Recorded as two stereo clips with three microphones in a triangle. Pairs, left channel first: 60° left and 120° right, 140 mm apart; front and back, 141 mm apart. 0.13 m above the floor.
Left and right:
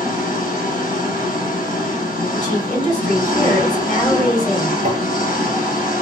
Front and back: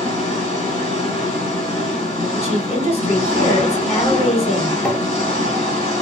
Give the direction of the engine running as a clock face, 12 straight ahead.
10 o'clock.